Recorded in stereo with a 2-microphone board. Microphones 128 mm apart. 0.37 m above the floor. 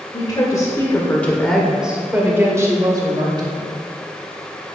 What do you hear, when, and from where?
0.1 s a woman speaking: 35° left (ahead or behind), 1.8 m; by 3.6 s 35° right (ahead or behind), 2.5 m